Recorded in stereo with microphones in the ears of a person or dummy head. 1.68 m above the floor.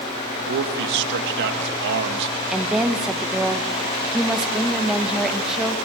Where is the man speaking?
60° right (ahead or behind), 2 m.